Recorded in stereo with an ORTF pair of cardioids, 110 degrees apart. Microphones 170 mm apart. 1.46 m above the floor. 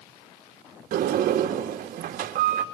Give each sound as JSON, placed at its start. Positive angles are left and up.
{"t": 0.9, "sound": "a sliding door", "azimuth_deg": -55, "distance_m": 2.0}